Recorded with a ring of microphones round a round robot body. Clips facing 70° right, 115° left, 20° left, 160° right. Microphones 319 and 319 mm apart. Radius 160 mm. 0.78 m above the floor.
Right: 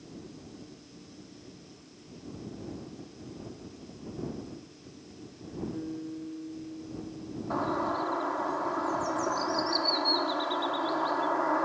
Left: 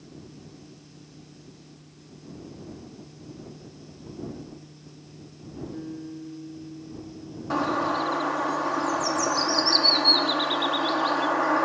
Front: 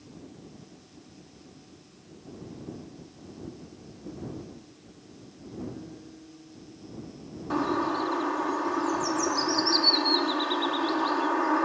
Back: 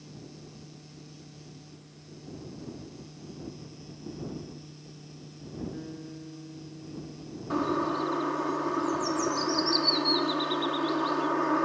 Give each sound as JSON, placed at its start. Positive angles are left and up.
{"t": 5.7, "sound": "a guitar", "azimuth_deg": -165}
{"t": 7.5, "sound": "a bird", "azimuth_deg": 105}